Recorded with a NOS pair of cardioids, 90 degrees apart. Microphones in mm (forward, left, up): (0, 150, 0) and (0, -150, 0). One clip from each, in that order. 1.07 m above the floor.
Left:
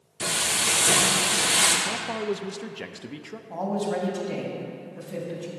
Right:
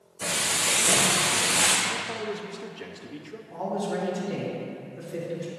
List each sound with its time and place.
0.2 s frying: 70° left, 1.6 m
1.9 s a man speaking: 35° left, 0.6 m
3.5 s a man speaking: 70° left, 3 m